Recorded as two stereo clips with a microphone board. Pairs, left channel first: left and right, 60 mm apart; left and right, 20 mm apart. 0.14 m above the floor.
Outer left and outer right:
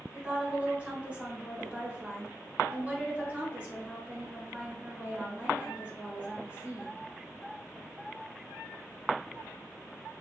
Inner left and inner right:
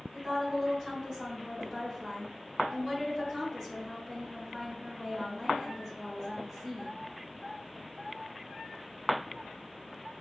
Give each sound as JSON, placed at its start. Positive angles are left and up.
{"t": 0.1, "sound": "a woman speaking", "side_deg": -20, "distance_m": 1.6}